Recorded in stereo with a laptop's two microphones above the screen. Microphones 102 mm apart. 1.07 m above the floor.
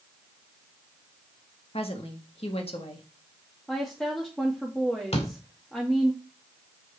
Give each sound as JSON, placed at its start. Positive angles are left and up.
{"t": 1.7, "sound": "a woman speaking", "side_deg": 70, "distance_m": 1.6}
{"t": 3.7, "sound": "a woman speaking", "side_deg": 5, "distance_m": 2.0}
{"t": 5.1, "sound": "a door slam", "side_deg": 75, "distance_m": 2.0}